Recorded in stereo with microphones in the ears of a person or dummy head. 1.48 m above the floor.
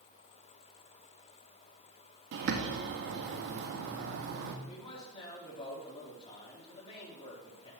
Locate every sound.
2.3 s a bird: 55° right (ahead or behind), 1.2 m
4.7 s a man speaking: 30° left (ahead or behind), 4 m